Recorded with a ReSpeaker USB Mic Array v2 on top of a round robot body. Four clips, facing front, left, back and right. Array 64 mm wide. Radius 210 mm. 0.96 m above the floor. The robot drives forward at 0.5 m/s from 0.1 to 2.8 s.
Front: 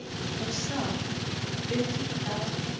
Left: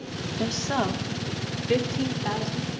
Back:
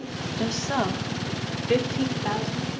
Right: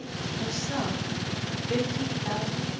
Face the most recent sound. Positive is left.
turn(degrees=155)